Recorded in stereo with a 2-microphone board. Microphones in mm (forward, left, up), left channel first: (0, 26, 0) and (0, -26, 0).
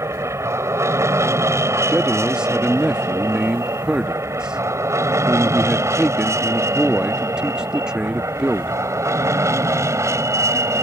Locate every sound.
0.0 s an aircraft: 65° right (ahead or behind); by 10.8 s 70° right (ahead or behind)
1.9 s a man speaking: 15° right (ahead or behind)